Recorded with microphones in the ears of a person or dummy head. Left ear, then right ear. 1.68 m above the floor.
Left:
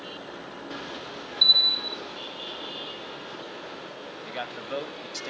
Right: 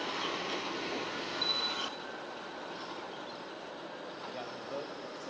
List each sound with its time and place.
1.4 s a bell: 45° left (ahead or behind), 1.7 m
4.2 s a man speaking: 70° left (ahead or behind), 2.0 m